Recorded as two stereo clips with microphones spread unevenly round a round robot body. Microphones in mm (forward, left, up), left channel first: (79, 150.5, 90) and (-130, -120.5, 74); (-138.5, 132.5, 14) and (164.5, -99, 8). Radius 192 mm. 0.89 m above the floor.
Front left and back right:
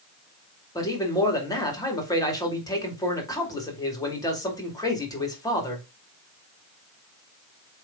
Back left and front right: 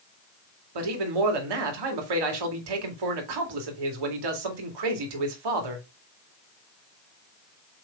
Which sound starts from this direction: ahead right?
A man speaking, at 0.8 s.